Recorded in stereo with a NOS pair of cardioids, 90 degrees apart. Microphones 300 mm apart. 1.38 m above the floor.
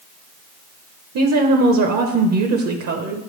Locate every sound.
1.1 s a woman speaking: 60° right, 0.9 m